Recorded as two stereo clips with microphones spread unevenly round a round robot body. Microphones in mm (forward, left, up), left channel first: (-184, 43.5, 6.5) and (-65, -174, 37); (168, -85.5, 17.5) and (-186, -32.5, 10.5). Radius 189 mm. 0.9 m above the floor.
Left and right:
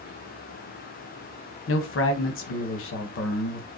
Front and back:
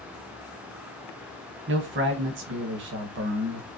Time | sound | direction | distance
1.7 | a man speaking | 120° left | 0.8 m